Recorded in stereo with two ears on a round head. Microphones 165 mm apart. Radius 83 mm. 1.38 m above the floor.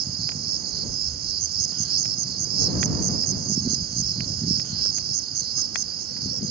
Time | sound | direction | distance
0.0 | an insect | 55° right (ahead or behind) | ?